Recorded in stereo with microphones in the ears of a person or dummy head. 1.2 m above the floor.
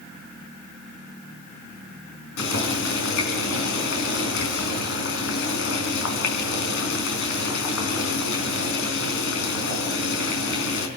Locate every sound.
2.4 s boiling: 80° left, 5 m